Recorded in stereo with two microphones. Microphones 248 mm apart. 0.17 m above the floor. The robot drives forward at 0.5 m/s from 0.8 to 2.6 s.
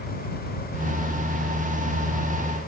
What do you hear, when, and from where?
Only background noise.